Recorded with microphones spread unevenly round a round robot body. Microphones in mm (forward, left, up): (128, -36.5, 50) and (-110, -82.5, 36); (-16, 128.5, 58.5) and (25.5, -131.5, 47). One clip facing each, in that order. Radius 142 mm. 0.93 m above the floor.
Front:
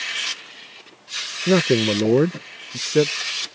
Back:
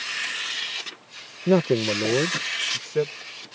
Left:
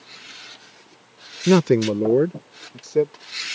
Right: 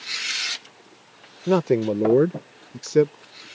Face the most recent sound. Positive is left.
turn(degrees=-25)